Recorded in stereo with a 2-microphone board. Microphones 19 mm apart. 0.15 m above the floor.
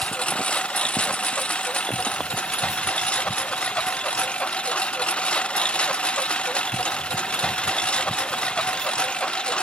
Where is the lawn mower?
90° left; by 9.6 s 55° left (ahead or behind).